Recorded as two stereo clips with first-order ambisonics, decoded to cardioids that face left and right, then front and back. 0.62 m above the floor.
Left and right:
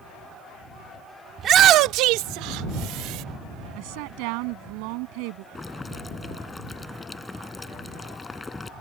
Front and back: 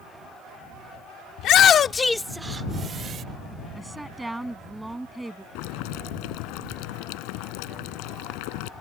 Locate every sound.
1.4 s a shout: 30° right; by 3.2 s 125° right
3.8 s a woman speaking: 95° right
5.5 s boiling: 15° left